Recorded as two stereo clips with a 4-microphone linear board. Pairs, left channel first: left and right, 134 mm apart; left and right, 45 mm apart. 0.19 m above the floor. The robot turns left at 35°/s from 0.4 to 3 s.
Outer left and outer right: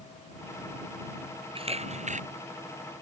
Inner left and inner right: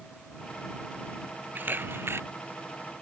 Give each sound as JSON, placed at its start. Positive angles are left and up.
{"t": 1.6, "sound": "a camera shutter", "side_deg": -45}